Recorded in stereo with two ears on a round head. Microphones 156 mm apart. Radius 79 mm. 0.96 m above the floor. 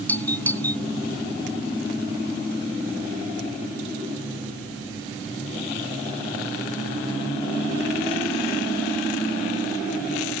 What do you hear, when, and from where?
0.1 s a doorbell: 10° left (ahead or behind)